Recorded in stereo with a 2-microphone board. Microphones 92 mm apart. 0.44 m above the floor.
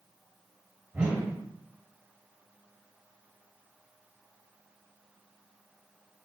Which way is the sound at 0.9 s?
20° right (ahead or behind).